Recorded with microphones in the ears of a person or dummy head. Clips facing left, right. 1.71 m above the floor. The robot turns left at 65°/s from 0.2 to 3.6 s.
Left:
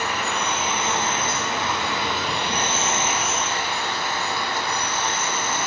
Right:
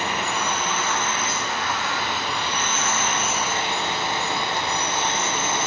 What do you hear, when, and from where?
0.0 s an insect: 155° right, 1.0 m; by 5.7 s 20° right, 1.0 m